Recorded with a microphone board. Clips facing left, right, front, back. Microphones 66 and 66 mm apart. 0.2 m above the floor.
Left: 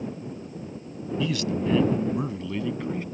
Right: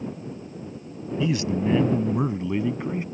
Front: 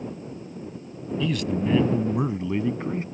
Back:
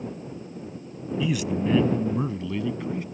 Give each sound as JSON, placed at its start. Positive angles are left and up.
{"t": 1.2, "sound": "a man speaking", "azimuth_deg": -120}